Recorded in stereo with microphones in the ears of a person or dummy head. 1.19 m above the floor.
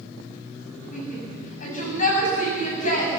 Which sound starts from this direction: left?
A shout, at 0.9 s.